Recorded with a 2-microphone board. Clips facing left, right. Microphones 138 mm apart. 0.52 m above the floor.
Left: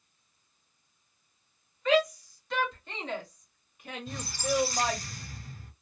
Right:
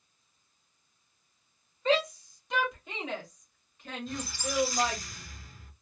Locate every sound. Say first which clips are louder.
1.9 s a shout: left 2 dB; 30° right (ahead or behind), 1.3 m; by 5.0 s 30° left (ahead or behind), 1.7 m
4.1 s a squeak: left 6 dB; 40° left (ahead or behind), 1.3 m